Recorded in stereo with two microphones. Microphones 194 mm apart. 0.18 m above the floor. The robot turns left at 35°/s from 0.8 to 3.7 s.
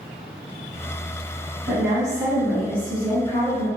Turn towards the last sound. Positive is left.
turn(degrees=-85)